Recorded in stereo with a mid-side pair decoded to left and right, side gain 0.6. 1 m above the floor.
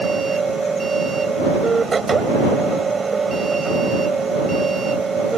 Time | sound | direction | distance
0.0 | a machine running | 25° right | ?